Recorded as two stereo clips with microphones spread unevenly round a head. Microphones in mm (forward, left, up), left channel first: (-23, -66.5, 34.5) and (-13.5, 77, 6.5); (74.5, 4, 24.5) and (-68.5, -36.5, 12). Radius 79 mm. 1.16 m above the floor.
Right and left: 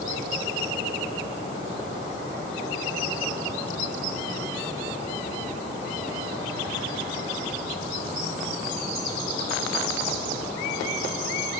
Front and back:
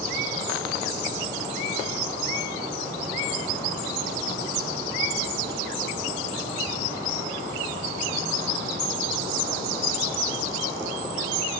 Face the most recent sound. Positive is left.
No sound to turn to.